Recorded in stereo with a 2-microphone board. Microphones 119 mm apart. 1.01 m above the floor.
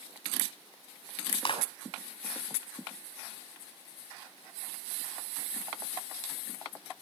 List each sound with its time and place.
1.4 s a clap: 50° left (ahead or behind), 6 m